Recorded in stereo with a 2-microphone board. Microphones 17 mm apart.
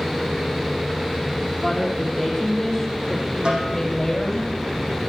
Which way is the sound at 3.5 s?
75° right (ahead or behind).